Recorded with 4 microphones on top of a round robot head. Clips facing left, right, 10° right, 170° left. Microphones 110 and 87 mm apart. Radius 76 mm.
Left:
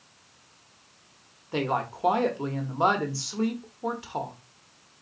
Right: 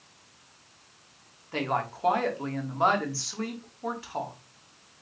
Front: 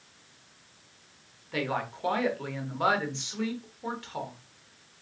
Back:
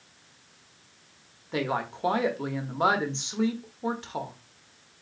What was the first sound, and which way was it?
A woman speaking, 135° left.